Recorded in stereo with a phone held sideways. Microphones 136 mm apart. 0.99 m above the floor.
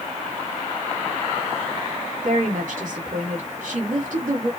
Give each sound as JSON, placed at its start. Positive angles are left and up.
{"t": 2.2, "sound": "a woman speaking", "side_deg": -70, "distance_m": 2.5}